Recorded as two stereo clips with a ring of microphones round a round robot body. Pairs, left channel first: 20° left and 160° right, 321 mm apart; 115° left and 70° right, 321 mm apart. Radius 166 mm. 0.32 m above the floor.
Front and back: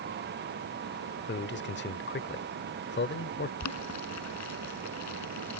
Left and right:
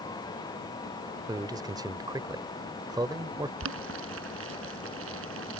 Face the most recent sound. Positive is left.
turn(degrees=-15)